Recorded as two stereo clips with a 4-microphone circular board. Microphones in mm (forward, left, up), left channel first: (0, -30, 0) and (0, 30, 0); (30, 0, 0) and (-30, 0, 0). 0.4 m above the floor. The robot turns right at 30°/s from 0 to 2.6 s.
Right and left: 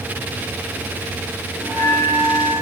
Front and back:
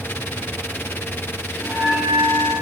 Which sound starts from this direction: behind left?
A bell, at 1.6 s.